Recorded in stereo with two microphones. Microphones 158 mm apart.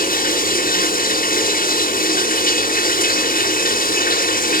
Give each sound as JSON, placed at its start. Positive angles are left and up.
{"t": 0.0, "sound": "running water", "side_deg": 65, "distance_m": 0.8}